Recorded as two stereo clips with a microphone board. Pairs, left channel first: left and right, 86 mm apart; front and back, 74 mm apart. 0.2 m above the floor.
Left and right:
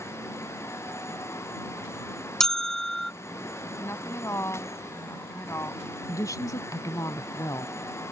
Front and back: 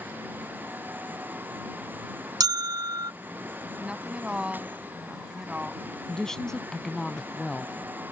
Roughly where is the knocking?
No knocking in this recording.